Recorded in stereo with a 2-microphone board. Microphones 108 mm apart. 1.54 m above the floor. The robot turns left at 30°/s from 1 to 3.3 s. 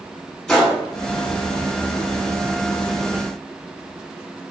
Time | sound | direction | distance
0.5 | a gunshot | 5° left (ahead or behind) | 1.2 m